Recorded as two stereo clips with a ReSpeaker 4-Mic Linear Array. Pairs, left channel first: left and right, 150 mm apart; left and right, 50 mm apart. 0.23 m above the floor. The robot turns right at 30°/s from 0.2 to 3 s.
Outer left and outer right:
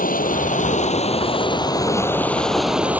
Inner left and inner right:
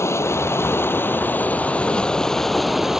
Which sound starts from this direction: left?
Running water, at 0.0 s.